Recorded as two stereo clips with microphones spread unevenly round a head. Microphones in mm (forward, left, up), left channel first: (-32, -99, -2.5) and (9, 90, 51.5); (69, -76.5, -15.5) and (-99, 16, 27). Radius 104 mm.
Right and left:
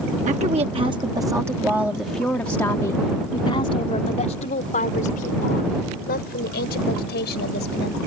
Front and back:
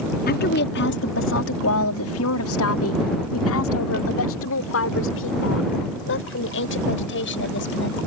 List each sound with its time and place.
0.3 s a woman speaking: 20° left; by 8.0 s 60° right